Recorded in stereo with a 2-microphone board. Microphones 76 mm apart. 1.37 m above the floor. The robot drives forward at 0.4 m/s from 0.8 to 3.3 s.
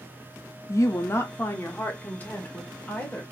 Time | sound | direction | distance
0.7 | a woman speaking | 40° left (ahead or behind) | 0.5 m